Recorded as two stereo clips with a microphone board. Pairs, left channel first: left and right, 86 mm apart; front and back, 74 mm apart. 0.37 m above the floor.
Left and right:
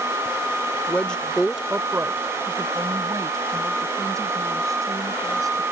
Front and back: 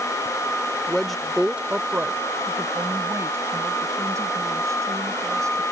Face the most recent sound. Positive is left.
turn(degrees=-135)